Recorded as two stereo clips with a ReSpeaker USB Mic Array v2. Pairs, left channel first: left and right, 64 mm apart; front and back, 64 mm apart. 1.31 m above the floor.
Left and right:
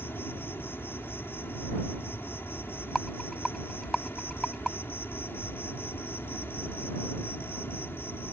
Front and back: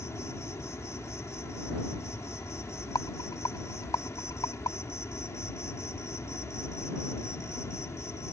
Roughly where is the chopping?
I don't hear chopping.